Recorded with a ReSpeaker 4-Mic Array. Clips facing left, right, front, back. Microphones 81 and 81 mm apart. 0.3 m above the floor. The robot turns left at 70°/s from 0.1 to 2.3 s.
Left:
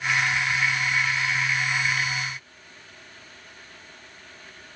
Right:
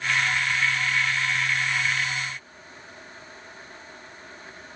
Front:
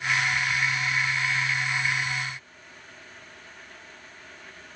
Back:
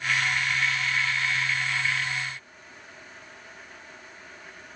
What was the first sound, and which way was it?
Only background noise.